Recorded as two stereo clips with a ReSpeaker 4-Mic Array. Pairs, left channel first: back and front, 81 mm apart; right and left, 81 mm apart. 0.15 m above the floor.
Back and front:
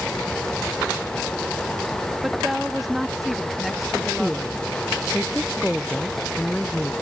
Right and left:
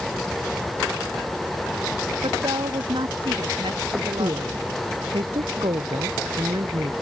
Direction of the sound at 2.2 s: 90° left.